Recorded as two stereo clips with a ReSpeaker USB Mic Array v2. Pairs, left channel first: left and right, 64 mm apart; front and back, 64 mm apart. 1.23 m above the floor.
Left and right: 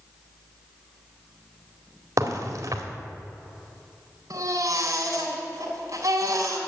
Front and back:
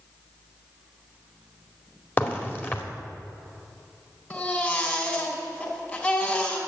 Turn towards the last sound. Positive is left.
turn(degrees=-60)